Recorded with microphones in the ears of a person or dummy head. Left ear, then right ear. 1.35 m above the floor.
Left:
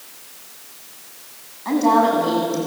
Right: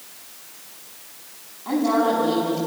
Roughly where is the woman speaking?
Left.